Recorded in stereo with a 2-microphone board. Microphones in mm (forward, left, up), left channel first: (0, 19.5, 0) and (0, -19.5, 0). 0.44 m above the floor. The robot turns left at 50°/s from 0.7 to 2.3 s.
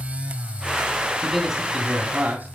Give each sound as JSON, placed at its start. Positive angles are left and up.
{"t": 1.2, "sound": "a man speaking", "azimuth_deg": 5, "distance_m": 3.0}